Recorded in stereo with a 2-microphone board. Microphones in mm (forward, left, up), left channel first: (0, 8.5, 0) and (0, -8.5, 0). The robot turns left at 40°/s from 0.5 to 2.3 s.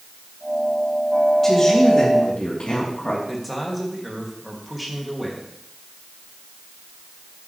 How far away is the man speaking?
About 3 m.